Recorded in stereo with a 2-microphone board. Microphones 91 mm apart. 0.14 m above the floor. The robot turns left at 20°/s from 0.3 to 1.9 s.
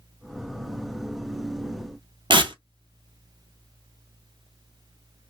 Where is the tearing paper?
65° right (ahead or behind), 0.5 m.